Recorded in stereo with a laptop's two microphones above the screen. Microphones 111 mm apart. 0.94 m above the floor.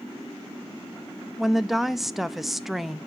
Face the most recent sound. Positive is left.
turn(degrees=0)  # may be behind; listen again after turning